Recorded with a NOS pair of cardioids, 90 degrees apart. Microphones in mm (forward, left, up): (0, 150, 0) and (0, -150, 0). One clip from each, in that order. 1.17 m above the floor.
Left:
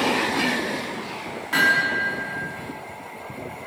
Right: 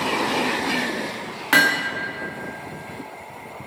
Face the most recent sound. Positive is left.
turn(degrees=-70)